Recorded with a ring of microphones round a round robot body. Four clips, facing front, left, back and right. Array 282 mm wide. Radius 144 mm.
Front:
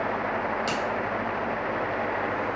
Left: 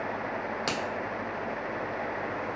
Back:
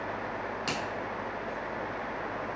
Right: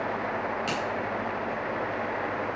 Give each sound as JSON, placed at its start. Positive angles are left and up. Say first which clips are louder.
{"t": 0.7, "sound": "a finger snap", "louder": "right 2 dB, front 6 dB", "azimuth_deg": 90, "distance_m": 1.9}